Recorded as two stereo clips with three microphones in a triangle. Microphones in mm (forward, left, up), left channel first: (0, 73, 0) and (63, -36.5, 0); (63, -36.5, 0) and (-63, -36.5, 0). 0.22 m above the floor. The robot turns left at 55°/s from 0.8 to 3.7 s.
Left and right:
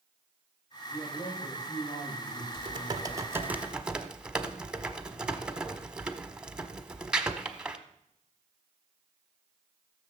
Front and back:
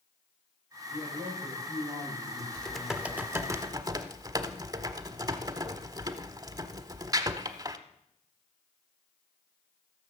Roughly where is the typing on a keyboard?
Right.